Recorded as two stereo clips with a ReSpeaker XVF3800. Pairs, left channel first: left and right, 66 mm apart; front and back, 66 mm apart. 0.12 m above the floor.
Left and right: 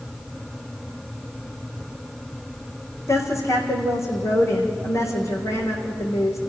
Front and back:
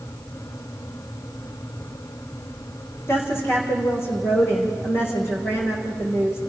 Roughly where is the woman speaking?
Ahead left.